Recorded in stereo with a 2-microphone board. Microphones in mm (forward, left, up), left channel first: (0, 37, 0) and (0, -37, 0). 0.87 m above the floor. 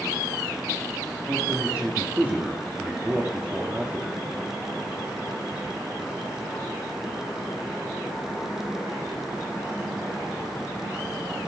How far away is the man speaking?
About 1.6 m.